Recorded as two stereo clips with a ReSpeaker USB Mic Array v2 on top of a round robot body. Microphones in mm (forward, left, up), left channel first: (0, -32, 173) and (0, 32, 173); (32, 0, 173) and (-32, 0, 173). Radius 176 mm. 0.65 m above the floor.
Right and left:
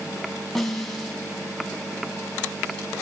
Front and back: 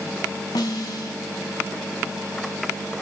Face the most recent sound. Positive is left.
turn(degrees=-5)